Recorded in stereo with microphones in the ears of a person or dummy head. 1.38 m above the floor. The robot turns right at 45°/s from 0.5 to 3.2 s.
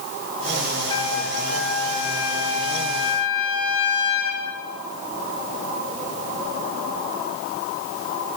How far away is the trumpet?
About 9 m.